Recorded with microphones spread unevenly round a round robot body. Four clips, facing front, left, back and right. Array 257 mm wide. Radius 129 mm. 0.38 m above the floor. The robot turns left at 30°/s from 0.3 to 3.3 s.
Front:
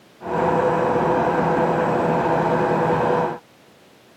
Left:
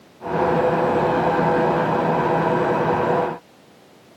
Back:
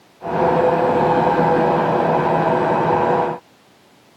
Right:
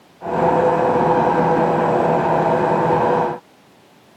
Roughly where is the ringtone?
No ringtone in this recording.